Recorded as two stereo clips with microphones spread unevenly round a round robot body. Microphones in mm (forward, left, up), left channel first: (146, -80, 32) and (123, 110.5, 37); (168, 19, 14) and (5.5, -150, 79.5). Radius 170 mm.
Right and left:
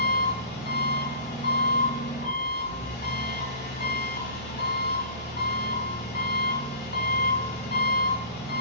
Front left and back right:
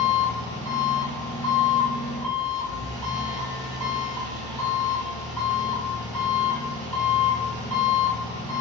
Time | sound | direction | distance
0.0 | an engine running | 65° right | 1.7 m